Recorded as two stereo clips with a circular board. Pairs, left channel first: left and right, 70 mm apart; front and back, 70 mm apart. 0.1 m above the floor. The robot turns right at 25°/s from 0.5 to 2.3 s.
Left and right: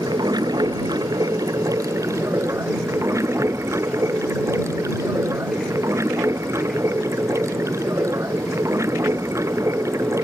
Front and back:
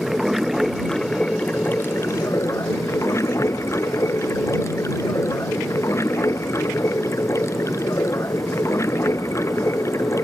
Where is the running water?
90° right; by 10.2 s 45° right.